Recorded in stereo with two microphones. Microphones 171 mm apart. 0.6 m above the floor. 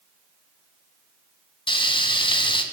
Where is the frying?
30° left (ahead or behind), 1.2 m.